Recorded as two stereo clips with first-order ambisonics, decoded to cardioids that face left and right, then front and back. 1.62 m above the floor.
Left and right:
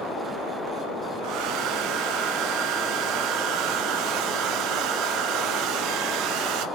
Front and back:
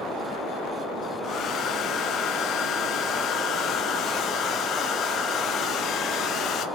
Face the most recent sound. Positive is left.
turn(degrees=-55)